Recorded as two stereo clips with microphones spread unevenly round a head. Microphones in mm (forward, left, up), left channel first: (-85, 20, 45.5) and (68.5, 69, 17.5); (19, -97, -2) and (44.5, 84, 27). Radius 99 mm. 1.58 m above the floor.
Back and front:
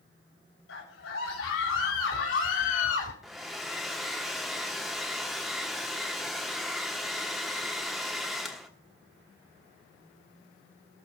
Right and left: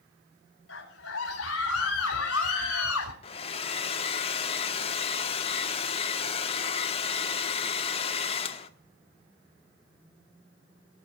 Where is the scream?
135° right, 4.5 m; by 3.1 s 130° right, 3 m.